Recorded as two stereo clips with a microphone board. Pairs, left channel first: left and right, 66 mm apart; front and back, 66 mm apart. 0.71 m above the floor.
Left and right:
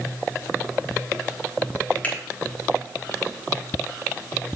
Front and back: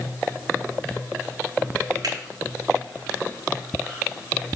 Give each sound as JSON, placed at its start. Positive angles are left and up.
{"t": 2.0, "sound": "a finger snap", "azimuth_deg": 155, "distance_m": 3.0}